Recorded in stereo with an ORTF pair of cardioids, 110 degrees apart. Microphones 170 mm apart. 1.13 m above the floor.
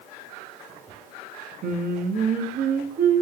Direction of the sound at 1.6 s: 60° right.